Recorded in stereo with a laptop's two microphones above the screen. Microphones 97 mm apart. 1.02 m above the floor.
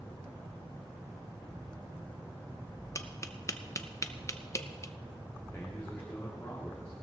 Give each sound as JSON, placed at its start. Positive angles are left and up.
{"t": 3.0, "sound": "tapping", "side_deg": 35, "distance_m": 0.6}
{"t": 5.5, "sound": "a man speaking", "side_deg": 25, "distance_m": 2.0}